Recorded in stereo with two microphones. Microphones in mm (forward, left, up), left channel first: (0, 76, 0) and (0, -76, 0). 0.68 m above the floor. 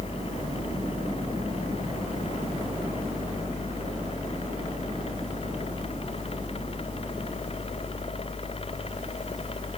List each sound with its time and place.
Only background noise.